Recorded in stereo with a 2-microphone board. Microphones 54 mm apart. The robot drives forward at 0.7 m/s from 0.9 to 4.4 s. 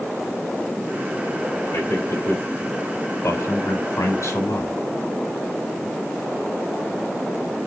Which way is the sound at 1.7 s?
70° left (ahead or behind).